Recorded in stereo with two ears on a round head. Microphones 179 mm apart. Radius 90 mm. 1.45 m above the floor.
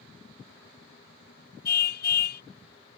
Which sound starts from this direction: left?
A car horn, at 1.6 s.